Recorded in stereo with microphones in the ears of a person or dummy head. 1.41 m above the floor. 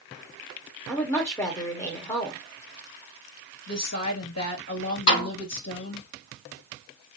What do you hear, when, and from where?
0.9 s a woman speaking: 10° left (ahead or behind), 1.5 m
3.7 s a woman speaking: 75° left (ahead or behind), 3 m
5.1 s a snare drum: 65° left (ahead or behind), 4.5 m